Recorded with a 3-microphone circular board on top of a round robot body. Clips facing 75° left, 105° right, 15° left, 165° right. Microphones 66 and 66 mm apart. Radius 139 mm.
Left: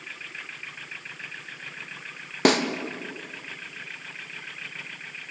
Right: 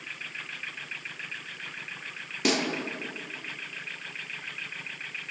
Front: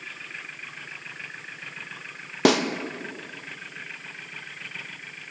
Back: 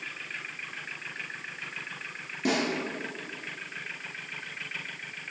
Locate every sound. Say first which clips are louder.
2.5 s a snare drum: left 6 dB, front 8 dB; 30° left, 0.5 m